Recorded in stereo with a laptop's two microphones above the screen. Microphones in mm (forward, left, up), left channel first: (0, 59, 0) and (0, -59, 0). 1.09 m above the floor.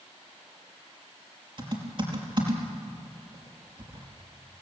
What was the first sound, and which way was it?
Typing on a keyboard, 45° right (ahead or behind).